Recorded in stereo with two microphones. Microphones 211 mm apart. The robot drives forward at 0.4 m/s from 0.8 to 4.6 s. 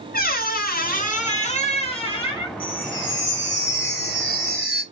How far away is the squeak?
About 0.8 m.